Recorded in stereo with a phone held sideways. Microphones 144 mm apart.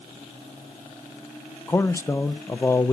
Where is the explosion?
No explosion in this recording.